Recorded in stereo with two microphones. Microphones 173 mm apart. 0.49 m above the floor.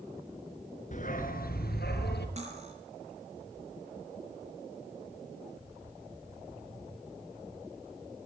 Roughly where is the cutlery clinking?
Right.